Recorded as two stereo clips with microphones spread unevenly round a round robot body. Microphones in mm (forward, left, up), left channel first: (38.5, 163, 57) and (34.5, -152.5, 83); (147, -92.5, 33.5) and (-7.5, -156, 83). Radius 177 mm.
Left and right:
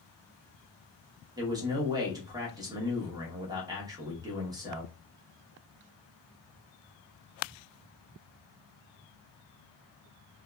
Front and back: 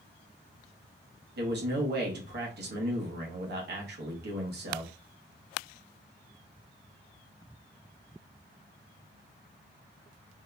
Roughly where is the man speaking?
Behind.